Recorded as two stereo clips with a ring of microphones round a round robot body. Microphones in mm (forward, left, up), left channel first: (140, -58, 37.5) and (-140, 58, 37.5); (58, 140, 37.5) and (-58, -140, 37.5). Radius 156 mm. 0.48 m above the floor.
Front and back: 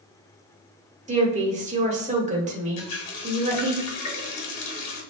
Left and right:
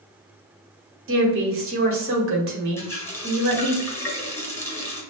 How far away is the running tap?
About 1.7 m.